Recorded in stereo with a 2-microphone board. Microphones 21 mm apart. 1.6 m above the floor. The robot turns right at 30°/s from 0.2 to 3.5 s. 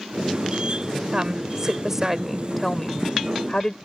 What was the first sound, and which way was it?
A woman speaking, 35° right.